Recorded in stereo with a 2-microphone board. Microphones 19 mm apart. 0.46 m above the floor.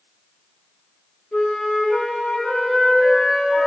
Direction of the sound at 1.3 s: 75° left (ahead or behind).